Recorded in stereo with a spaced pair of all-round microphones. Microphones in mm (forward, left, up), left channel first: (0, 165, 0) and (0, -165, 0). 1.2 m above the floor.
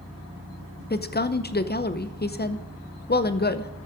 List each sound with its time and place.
0.9 s a woman speaking: 30° left (ahead or behind), 0.6 m